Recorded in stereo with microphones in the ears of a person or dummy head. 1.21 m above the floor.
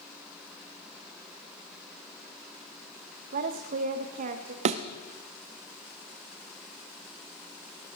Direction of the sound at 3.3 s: 50° right (ahead or behind).